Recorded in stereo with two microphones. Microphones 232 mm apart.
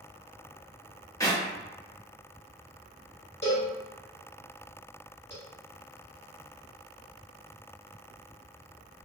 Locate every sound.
1.2 s a clap: 15° left (ahead or behind), 0.8 m
3.4 s a cowbell: 50° left (ahead or behind), 1.5 m